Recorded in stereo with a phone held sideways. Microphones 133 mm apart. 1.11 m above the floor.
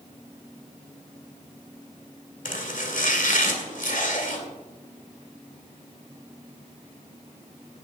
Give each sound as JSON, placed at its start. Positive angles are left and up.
{"t": 2.5, "sound": "chopping", "side_deg": 80, "distance_m": 2.0}